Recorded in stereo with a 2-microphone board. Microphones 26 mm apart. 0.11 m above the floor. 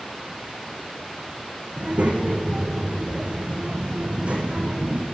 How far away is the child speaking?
About 3.5 m.